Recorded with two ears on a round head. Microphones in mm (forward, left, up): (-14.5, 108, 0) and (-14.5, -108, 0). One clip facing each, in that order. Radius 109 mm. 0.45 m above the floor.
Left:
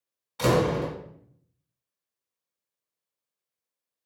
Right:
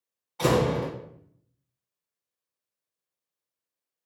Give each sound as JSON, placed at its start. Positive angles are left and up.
{"t": 0.4, "sound": "a door slam", "side_deg": 25, "distance_m": 1.7}